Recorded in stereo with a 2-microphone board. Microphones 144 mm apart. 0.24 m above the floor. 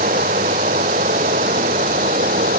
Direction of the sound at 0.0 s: 75° right (ahead or behind).